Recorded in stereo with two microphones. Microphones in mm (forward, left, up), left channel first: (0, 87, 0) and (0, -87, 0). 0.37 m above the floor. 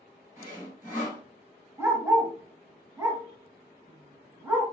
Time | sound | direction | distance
0.4 | sawing | 15° right (ahead or behind) | 1.7 m
1.8 | a dog barking | 15° right (ahead or behind) | 1.3 m